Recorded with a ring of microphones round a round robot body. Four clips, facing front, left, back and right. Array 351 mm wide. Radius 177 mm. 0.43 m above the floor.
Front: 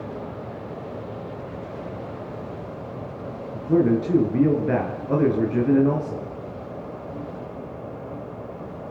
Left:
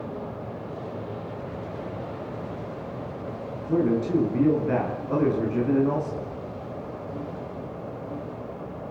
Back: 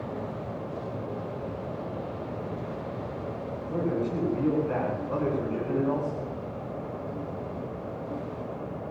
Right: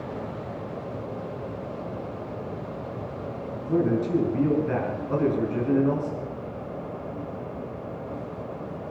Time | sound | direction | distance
3.5 | a man speaking | 5° right | 7.5 m